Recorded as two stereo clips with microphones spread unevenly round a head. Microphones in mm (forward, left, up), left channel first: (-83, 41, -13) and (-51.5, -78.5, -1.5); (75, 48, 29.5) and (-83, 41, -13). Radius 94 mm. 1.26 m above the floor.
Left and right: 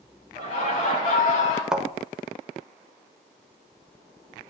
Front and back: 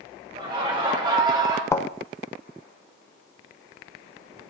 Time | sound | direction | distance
0.3 | laughter | 120° left | 5.5 m
1.7 | a thud | 5° right | 1.0 m